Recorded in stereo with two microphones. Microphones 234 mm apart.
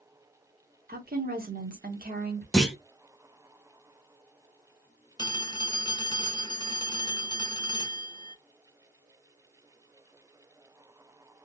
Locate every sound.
0.9 s a woman speaking: 40° right (ahead or behind), 1.2 m
2.5 s a clunk: centre (ahead or behind), 0.9 m
5.2 s a phone ringing: 20° left (ahead or behind), 0.5 m